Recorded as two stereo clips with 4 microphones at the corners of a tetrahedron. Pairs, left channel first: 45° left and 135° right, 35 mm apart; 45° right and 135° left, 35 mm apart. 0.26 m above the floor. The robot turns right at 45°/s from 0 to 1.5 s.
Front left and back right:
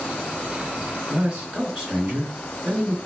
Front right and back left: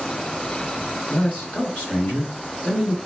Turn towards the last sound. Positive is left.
turn(degrees=-70)